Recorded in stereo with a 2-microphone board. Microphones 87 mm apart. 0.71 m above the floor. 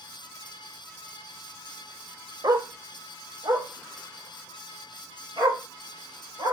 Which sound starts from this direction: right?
A dog barking, at 2.4 s.